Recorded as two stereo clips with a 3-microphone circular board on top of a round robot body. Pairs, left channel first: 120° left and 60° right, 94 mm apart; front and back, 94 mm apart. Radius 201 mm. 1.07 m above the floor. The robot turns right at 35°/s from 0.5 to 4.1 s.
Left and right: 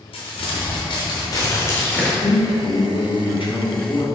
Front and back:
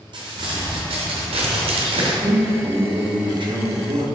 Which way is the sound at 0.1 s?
145° left.